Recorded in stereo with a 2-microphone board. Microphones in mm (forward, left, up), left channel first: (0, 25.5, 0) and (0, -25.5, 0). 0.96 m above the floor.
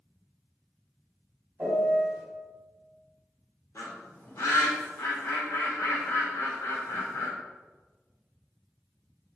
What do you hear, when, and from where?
1.6 s a piano: 40° right (ahead or behind), 1.4 m
3.8 s a bird: 90° left, 0.8 m